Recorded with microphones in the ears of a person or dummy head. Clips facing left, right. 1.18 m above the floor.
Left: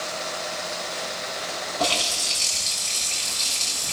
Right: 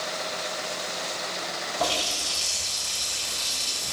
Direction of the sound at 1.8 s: 20° right (ahead or behind).